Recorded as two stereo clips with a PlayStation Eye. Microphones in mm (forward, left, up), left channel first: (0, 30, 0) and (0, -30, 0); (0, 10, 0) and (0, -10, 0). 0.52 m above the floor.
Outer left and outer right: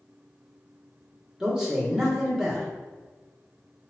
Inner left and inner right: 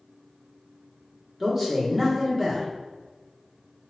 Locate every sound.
1.4 s a man speaking: 10° right (ahead or behind), 1.0 m